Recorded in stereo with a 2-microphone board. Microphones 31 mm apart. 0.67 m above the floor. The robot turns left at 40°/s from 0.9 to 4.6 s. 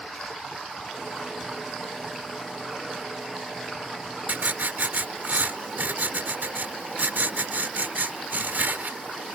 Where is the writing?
60° right (ahead or behind); by 9.4 s 75° right (ahead or behind).